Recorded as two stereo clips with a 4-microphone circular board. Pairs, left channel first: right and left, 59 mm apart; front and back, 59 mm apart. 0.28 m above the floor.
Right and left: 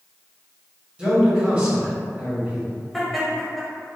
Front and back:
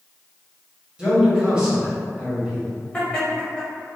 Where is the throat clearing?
I don't hear throat clearing.